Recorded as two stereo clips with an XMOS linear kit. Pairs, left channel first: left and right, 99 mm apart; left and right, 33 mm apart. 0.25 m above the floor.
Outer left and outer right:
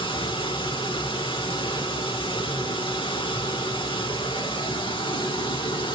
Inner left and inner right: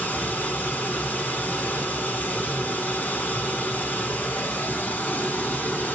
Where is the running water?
60° left (ahead or behind), 0.8 m.